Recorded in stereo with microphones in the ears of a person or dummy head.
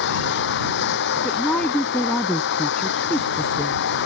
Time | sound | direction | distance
0.0 | running water | 60° left (ahead or behind) | ?
1.2 | a woman speaking | 5° left (ahead or behind) | ?